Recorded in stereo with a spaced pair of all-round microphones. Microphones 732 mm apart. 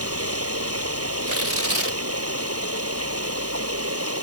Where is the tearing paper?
50° right (ahead or behind).